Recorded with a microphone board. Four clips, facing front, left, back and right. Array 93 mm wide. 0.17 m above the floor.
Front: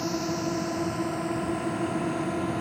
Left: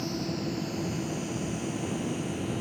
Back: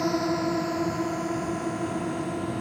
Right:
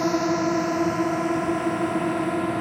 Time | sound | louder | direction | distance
0.0 | a drone | right 11 dB, back 4 dB | 115° right | ?